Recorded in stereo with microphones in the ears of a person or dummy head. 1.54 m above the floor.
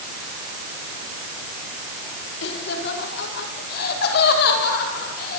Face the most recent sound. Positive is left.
turn(degrees=55)  # may be behind; listen again after turning